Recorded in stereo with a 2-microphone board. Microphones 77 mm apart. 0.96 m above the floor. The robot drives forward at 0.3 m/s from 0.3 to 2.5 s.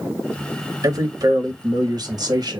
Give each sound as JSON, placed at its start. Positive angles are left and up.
{"t": 0.8, "sound": "a man speaking", "side_deg": -50, "distance_m": 1.7}